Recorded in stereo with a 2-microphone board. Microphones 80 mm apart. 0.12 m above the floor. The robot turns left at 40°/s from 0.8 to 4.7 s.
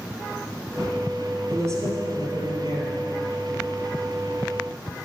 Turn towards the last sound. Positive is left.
turn(degrees=-165)